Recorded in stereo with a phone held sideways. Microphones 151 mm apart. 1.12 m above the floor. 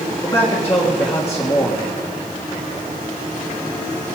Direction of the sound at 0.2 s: 20° left (ahead or behind).